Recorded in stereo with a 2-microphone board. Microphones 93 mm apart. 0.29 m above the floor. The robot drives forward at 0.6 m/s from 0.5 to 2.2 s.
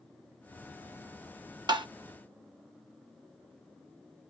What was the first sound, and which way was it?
Tapping, 55° right (ahead or behind).